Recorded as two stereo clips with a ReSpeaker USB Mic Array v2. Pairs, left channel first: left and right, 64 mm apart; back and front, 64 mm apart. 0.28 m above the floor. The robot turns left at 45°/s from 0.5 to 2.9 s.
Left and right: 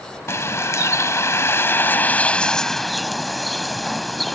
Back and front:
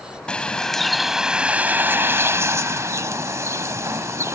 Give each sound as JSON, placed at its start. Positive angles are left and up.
{"t": 0.3, "sound": "a bird", "azimuth_deg": 110}